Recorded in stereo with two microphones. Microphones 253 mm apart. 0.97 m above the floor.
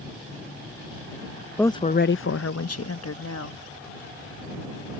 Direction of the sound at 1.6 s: 5° left (ahead or behind).